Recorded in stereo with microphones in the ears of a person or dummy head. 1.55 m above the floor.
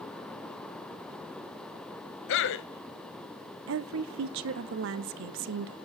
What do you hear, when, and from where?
2.3 s a man speaking: 70° left (ahead or behind), 1.0 m
3.7 s a woman speaking: 70° right (ahead or behind), 0.6 m